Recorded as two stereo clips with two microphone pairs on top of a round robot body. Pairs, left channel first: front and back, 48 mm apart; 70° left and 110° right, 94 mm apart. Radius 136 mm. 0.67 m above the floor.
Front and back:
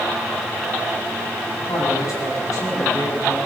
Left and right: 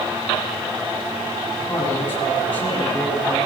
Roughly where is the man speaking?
Ahead.